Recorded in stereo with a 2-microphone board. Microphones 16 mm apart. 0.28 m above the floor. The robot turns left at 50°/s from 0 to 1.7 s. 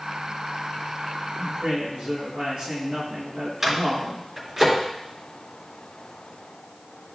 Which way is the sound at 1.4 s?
55° right (ahead or behind).